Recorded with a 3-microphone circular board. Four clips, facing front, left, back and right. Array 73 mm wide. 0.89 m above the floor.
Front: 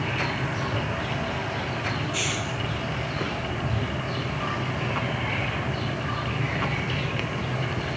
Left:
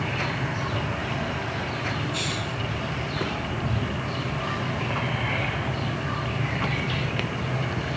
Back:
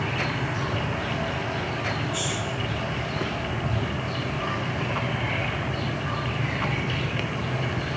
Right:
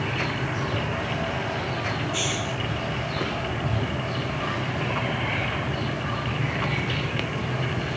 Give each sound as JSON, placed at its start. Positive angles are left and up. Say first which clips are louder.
{"t": 2.1, "sound": "a hiss", "louder": "right 2 dB, even", "azimuth_deg": 5}